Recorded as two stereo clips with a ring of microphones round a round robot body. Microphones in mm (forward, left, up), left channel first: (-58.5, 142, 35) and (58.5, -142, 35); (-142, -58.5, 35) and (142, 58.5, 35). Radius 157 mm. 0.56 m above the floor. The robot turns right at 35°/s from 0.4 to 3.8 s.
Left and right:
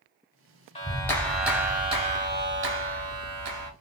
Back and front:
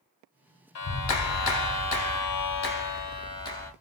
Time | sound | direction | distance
0.8 | a clap | 175° right | 1.2 m